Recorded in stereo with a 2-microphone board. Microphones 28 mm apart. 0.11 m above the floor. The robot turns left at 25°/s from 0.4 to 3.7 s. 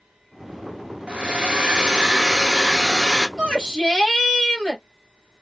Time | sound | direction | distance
1.1 | a hair dryer | 125° right | 1.2 m
3.4 | a shout | 20° left (ahead or behind) | 2 m